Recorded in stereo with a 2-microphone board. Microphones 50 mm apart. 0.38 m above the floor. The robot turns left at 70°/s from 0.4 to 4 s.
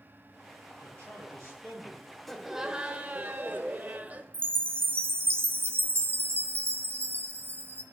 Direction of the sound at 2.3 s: 5° left.